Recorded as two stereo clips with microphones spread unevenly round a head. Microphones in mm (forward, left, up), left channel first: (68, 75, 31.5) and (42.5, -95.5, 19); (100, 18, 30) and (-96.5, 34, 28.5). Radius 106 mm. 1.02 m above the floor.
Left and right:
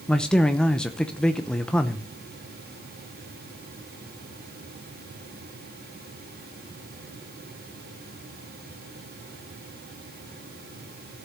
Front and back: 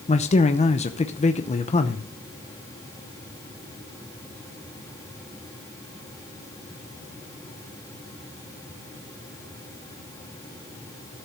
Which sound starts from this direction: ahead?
A man speaking, at 0.1 s.